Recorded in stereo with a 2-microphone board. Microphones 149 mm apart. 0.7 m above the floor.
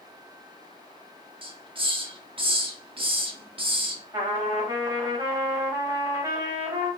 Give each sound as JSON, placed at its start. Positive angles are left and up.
{"t": 1.4, "sound": "a hiss", "side_deg": -35, "distance_m": 0.8}
{"t": 4.1, "sound": "a trumpet", "side_deg": -20, "distance_m": 1.9}